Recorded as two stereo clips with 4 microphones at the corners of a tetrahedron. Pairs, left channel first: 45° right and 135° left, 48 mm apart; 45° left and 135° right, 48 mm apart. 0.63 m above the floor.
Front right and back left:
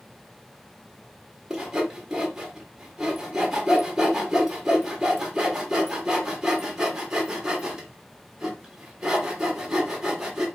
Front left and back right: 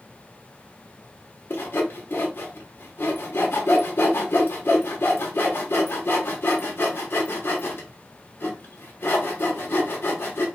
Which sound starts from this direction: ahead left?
Sawing, at 1.5 s.